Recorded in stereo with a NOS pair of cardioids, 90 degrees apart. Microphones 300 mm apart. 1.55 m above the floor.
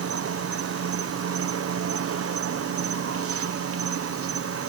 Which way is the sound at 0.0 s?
50° right.